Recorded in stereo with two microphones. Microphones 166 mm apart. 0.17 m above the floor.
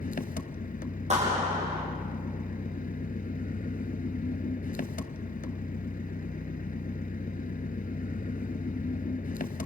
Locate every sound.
0.0 s an engine running: 55° left (ahead or behind), 0.7 m
1.1 s a clap: 45° right (ahead or behind), 7.5 m